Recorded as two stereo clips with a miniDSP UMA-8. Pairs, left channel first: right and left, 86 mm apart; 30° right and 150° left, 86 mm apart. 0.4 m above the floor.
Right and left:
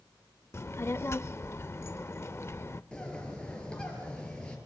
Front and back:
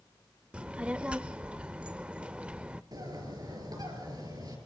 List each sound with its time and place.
0.5 s a child speaking: 135° right, 0.5 m
2.9 s a bird: 170° right, 5 m